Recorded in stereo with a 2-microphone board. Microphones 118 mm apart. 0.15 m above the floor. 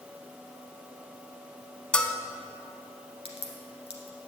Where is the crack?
55° left (ahead or behind), 1.6 m.